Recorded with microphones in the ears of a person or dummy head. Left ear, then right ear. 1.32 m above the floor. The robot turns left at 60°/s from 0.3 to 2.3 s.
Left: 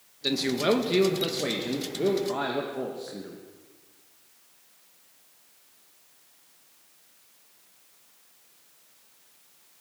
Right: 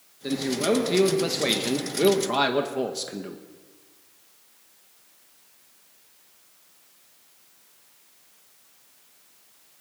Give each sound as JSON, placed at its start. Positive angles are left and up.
{"t": 0.2, "sound": "a man speaking", "azimuth_deg": 40, "distance_m": 1.7}